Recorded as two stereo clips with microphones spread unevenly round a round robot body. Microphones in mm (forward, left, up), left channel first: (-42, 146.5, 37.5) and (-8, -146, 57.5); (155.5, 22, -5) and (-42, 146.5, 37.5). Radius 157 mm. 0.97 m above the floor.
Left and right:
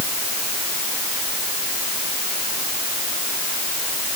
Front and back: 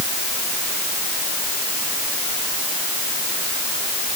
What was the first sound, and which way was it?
Only background noise.